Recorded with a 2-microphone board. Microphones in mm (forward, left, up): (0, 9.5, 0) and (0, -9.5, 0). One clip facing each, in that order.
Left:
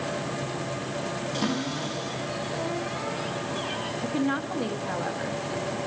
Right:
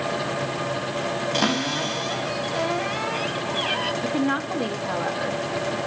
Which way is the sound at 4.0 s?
20° right (ahead or behind).